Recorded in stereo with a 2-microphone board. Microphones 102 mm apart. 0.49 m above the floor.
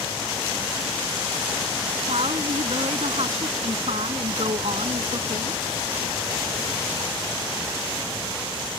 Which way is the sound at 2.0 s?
80° right.